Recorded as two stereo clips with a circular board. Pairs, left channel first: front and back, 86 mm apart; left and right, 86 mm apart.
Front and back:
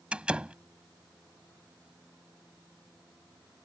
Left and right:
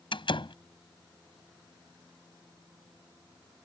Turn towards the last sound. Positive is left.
turn(degrees=105)